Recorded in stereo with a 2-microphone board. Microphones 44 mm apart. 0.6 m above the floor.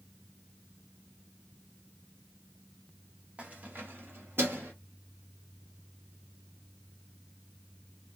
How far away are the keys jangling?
About 0.8 m.